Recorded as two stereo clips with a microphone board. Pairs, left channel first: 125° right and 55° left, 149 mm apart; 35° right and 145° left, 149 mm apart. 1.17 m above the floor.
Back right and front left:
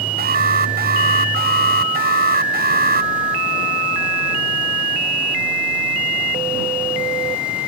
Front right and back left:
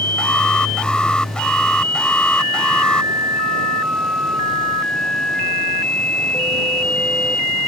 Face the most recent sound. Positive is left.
turn(degrees=50)